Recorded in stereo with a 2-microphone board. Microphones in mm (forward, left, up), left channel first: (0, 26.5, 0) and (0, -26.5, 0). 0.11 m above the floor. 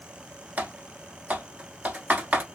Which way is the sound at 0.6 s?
30° right (ahead or behind).